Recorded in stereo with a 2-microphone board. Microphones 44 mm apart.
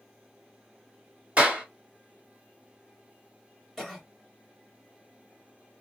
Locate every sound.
1.4 s a clap: 35° right (ahead or behind), 1.7 m
3.8 s a cough: centre (ahead or behind), 1.5 m